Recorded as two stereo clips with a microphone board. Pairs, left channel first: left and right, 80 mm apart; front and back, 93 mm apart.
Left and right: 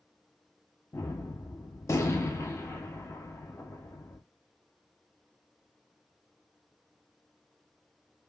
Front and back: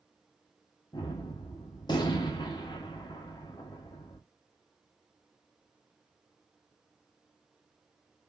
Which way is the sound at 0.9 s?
35° left.